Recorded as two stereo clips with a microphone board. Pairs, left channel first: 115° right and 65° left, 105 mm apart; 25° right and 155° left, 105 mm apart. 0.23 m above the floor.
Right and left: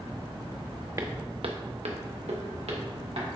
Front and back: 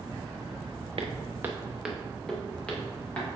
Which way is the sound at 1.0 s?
125° left.